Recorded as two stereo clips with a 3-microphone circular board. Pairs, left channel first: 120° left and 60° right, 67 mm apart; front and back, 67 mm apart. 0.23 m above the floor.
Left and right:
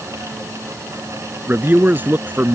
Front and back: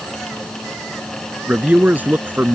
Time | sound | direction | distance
1.5 | a man speaking | 115° right | ?